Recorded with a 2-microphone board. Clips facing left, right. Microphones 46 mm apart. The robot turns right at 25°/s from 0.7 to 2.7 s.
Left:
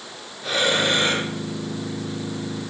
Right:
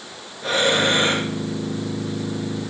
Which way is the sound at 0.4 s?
40° right (ahead or behind).